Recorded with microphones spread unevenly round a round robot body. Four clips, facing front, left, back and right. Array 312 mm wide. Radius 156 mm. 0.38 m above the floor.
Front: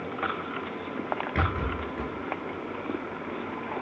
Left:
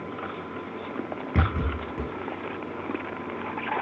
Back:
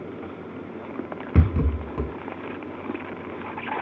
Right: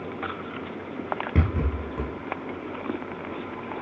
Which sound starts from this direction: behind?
A rattle, at 1.4 s.